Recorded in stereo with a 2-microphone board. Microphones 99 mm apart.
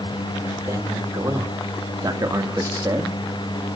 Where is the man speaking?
30° right (ahead or behind), 3 m.